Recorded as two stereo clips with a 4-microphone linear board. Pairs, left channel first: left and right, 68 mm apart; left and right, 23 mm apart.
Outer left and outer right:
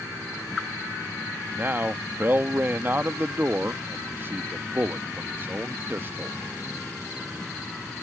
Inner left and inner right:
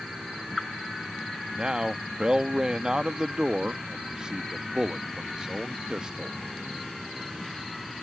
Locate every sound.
1.5 s a man speaking: 35° right (ahead or behind)